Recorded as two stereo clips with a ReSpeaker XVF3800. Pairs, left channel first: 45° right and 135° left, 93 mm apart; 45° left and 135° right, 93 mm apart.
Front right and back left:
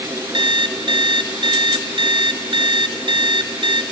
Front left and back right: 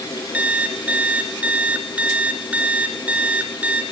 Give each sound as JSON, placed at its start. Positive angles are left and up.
{"t": 0.3, "sound": "an alarm clock", "azimuth_deg": 150, "distance_m": 1.8}